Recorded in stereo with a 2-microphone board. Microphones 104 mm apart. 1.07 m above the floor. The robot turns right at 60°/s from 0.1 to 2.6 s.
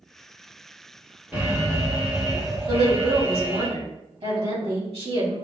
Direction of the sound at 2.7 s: 70° right (ahead or behind).